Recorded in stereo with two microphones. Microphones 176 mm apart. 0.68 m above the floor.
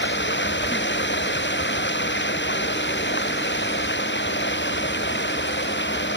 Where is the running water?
85° left.